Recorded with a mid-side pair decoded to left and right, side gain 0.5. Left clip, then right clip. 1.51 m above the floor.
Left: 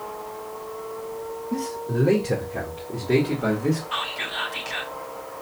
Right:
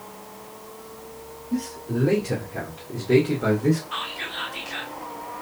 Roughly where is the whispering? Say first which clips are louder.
Left 3 dB; ahead left.